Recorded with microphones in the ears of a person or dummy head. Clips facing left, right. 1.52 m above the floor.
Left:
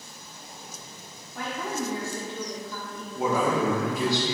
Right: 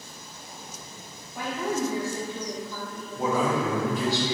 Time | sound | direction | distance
1.4 | a woman speaking | 10° right (ahead or behind) | 0.5 m
3.1 | a man speaking | 10° left (ahead or behind) | 0.6 m